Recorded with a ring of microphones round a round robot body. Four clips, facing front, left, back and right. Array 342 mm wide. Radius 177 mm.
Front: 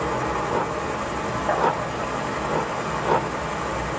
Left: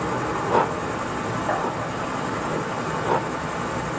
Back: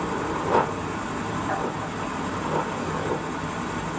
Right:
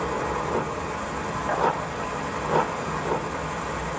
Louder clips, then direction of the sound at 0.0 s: Left 2 dB, front 2 dB; 35° left.